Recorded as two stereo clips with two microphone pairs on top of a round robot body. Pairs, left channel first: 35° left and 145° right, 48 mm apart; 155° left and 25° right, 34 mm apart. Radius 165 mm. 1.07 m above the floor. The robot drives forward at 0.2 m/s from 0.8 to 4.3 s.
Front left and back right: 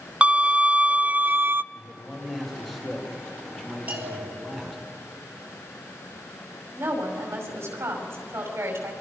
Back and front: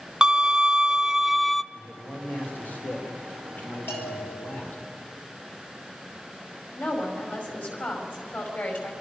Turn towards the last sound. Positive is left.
turn(degrees=180)